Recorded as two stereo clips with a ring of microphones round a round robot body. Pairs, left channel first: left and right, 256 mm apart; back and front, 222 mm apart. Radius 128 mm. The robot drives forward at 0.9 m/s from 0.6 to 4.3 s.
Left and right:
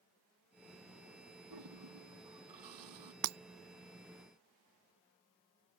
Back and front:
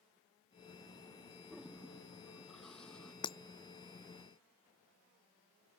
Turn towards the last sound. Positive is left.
turn(degrees=-135)